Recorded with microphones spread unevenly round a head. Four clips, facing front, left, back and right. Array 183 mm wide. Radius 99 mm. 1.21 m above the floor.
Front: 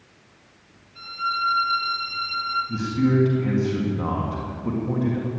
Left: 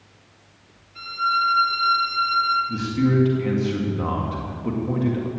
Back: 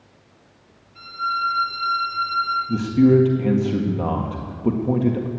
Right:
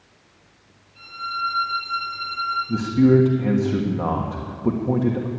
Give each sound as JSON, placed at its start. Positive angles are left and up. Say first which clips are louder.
{"t": 0.9, "sound": "a violin", "louder": "left 7 dB, back 2 dB", "azimuth_deg": 70, "distance_m": 5.5}
{"t": 2.7, "sound": "a man speaking", "louder": "right 5 dB, back 7 dB", "azimuth_deg": -160, "distance_m": 1.6}